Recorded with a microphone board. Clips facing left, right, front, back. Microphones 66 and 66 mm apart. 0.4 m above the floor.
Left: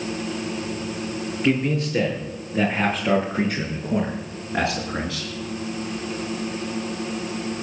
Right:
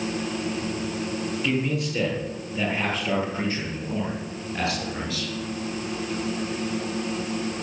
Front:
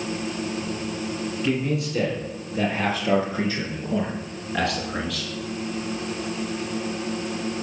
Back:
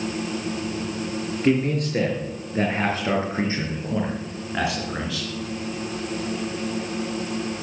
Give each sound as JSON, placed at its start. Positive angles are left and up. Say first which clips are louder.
{"t": 1.4, "sound": "a man speaking", "louder": "left 6 dB, back 5 dB", "azimuth_deg": 140, "distance_m": 6.5}